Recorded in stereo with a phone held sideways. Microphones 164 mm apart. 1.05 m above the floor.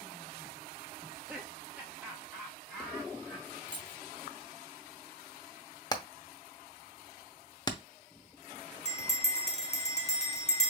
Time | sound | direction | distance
1.0 | laughter | 10° right (ahead or behind) | 0.7 m
3.7 | keys jangling | 25° right (ahead or behind) | 1.0 m
5.9 | hammering | 25° left (ahead or behind) | 0.7 m
8.8 | a bell | 40° left (ahead or behind) | 0.9 m